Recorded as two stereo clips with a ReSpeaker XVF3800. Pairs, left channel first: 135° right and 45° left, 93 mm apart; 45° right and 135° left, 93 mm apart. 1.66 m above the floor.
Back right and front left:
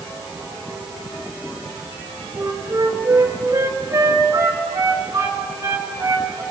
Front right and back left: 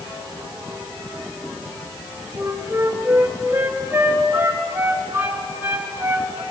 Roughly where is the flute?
Left.